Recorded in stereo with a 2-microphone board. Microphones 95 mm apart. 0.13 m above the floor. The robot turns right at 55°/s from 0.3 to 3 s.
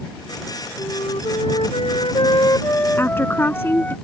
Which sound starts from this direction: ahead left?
A flute, at 0.8 s.